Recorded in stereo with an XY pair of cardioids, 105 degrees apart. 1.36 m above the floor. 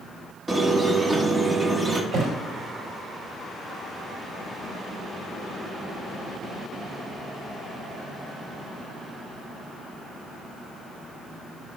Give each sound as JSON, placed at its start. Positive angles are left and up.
{"t": 0.5, "sound": "a squeak", "azimuth_deg": -25, "distance_m": 1.3}
{"t": 2.1, "sound": "a thud", "azimuth_deg": -55, "distance_m": 4.5}